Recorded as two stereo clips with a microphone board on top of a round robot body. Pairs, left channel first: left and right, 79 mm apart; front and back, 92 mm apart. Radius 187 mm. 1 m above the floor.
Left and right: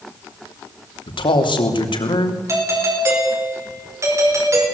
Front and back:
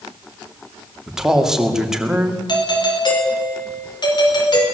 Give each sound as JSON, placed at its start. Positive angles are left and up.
{"t": 1.1, "sound": "a man speaking", "azimuth_deg": 95, "distance_m": 3.0}
{"t": 2.5, "sound": "a doorbell", "azimuth_deg": -40, "distance_m": 5.5}